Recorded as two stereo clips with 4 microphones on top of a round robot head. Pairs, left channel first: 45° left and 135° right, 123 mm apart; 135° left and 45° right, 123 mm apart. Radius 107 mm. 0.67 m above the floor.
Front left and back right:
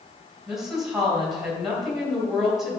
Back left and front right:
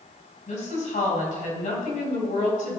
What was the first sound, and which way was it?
A woman speaking, 140° left.